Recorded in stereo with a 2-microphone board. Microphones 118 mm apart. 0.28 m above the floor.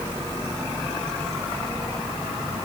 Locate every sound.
Only background noise.